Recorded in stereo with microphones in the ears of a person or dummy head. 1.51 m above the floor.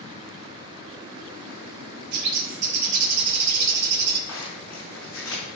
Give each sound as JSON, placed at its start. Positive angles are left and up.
{"t": 2.1, "sound": "a bird", "side_deg": -60, "distance_m": 1.2}
{"t": 4.3, "sound": "a zipper", "side_deg": 20, "distance_m": 4.5}